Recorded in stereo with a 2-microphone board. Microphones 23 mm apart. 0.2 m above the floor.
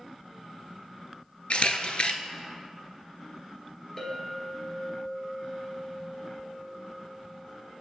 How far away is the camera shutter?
About 0.5 m.